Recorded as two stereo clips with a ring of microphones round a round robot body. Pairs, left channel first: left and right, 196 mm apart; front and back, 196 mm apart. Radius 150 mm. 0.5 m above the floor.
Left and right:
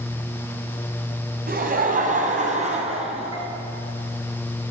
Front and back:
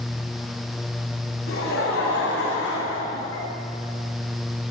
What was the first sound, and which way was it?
Laughter, 50° right.